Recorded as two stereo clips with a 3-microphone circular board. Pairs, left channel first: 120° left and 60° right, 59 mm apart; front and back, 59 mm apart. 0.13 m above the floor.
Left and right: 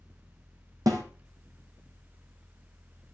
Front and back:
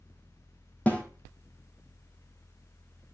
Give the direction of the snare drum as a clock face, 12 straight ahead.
2 o'clock.